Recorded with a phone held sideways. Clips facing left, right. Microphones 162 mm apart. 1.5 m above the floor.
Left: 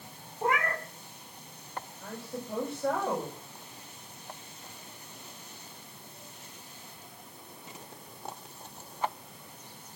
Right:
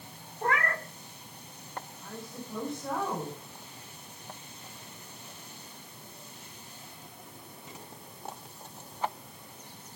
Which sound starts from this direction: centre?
A cat meowing, at 0.4 s.